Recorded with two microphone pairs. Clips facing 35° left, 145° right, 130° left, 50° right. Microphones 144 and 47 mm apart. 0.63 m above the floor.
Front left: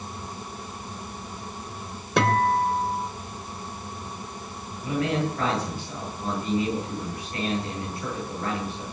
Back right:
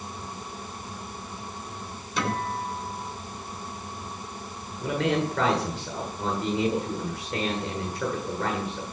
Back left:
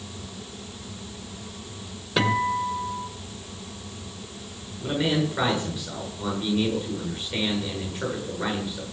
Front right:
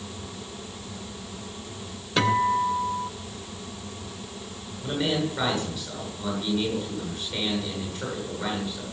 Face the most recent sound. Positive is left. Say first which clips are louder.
# even, back left 2 dB
turn(degrees=-155)